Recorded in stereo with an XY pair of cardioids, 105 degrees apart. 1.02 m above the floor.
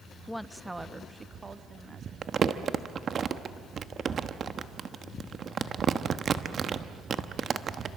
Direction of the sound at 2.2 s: 45° right.